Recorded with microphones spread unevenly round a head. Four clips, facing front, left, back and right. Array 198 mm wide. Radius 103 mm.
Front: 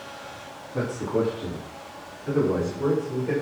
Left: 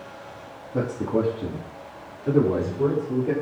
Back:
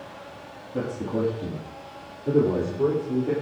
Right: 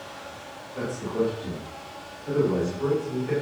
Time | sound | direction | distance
0.7 | a man speaking | 105° left | 3.5 m